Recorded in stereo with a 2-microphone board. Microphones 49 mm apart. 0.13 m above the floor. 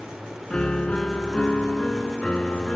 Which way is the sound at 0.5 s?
25° left (ahead or behind).